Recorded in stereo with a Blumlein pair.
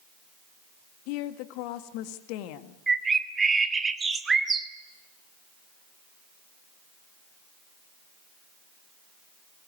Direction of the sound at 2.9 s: 15° right.